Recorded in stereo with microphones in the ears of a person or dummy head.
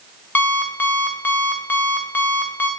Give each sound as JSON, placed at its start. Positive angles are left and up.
{"t": 0.3, "sound": "an alarm clock", "side_deg": 10, "distance_m": 0.7}